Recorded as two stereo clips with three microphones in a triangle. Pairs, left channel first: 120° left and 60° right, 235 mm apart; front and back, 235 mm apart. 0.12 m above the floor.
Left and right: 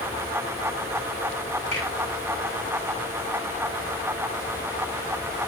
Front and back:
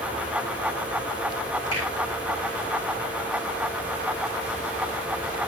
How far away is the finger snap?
About 5.5 m.